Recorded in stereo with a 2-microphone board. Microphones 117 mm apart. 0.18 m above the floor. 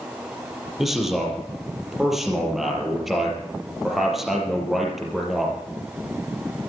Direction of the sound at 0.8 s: Centre (ahead or behind).